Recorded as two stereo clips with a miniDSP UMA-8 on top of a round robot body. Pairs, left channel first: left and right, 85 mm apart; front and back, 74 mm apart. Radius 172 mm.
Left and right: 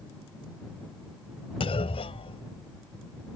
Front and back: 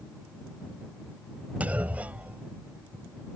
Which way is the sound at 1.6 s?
105° left.